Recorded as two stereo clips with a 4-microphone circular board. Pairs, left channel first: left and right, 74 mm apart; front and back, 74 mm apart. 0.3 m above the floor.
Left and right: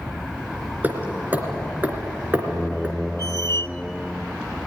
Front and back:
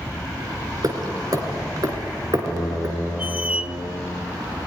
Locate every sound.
0.8 s hammering: 155° right, 2.5 m
3.2 s a squeak: 115° left, 0.7 m